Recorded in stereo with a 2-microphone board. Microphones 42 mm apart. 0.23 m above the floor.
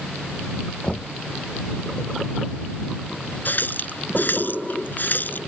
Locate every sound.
0.8 s knocking: 30° left (ahead or behind)
3.5 s a running tap: 50° left (ahead or behind)